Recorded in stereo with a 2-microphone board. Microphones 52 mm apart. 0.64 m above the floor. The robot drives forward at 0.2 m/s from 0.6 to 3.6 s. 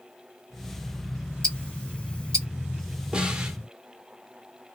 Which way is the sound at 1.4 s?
20° left (ahead or behind).